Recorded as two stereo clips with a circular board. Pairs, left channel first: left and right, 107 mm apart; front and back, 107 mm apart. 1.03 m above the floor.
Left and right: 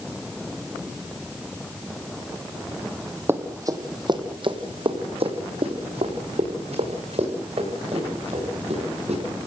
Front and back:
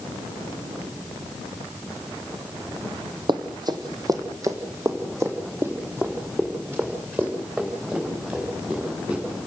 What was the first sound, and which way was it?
Running footsteps, 155° right.